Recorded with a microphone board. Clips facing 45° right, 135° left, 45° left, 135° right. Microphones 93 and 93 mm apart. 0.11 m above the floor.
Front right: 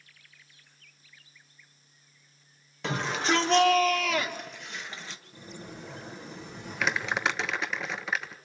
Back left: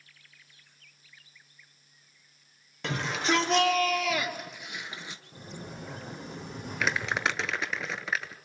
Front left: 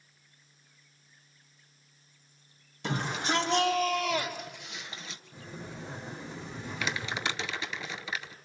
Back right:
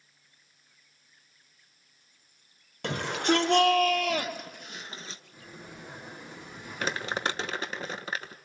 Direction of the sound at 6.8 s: 135° right.